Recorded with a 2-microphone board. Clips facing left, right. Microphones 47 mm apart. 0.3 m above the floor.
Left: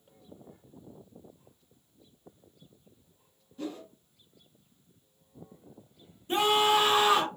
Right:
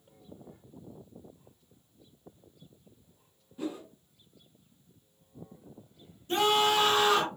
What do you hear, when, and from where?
3.6 s a whoosh: 10° right (ahead or behind), 0.9 m
6.3 s a scream: 20° left (ahead or behind), 1.1 m